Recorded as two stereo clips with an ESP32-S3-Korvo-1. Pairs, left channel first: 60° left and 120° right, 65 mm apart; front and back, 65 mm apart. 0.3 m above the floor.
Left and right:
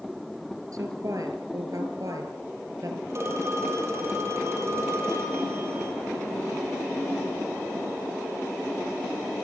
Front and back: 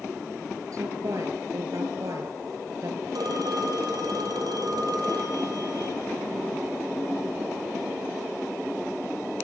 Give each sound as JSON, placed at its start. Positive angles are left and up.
{"t": 0.7, "sound": "a woman speaking", "azimuth_deg": -150, "distance_m": 5.5}
{"t": 3.1, "sound": "a phone ringing", "azimuth_deg": -170, "distance_m": 7.0}